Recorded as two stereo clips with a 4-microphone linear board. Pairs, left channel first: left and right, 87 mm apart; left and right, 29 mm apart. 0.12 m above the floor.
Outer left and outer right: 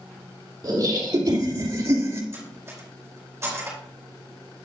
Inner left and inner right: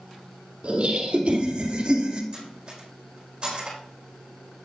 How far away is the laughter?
About 3 m.